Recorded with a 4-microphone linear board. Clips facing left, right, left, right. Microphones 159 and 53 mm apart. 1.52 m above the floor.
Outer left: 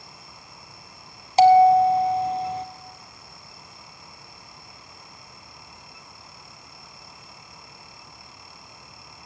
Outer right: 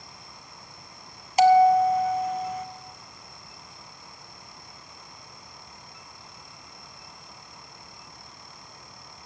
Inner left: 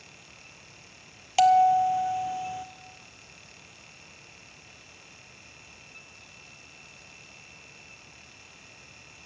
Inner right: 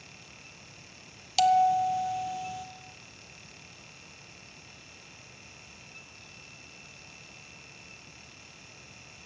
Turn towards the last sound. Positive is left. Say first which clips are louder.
# outer left 3 dB, inner left 4 dB
turn(degrees=30)  # may be behind; listen again after turning